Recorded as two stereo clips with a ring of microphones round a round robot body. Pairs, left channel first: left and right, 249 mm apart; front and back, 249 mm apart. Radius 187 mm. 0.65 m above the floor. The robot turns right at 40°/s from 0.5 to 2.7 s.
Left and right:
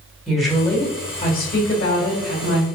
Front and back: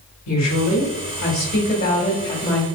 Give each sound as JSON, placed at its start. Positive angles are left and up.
{"t": 0.3, "sound": "a woman speaking", "azimuth_deg": 0, "distance_m": 2.0}